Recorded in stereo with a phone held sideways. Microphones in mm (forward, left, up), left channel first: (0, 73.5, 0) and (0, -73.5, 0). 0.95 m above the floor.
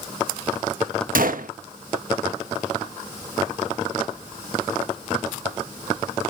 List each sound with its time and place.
1.1 s a gunshot: 70° right (ahead or behind), 0.9 m